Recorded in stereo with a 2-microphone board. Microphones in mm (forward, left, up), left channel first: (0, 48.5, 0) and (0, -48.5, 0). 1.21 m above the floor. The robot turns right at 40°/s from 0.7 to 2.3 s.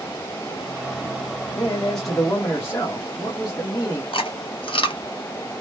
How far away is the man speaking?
About 1.2 m.